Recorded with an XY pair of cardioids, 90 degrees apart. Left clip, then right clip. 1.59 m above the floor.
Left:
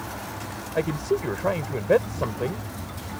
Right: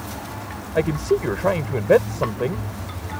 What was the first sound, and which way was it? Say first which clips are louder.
A man speaking: right 5 dB; 30° right.